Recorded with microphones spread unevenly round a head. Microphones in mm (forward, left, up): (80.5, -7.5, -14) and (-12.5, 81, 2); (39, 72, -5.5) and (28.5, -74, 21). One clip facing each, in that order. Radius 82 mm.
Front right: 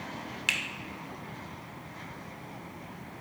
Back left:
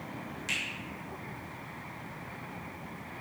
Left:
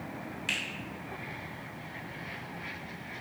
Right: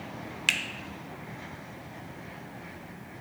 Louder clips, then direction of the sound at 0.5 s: Front right 2 dB, right 2 dB; 90° right.